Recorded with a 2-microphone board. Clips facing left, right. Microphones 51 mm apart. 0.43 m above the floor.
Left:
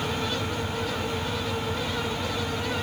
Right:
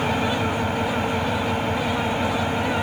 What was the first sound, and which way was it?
An engine running, 50° right (ahead or behind).